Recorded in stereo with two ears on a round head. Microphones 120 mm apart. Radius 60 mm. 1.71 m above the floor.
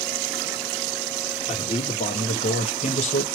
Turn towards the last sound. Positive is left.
turn(degrees=50)  # may be behind; listen again after turning